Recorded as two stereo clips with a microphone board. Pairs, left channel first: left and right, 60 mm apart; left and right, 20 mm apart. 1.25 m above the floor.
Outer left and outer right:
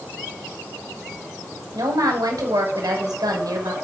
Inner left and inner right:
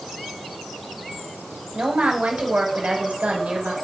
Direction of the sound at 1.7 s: 85° right.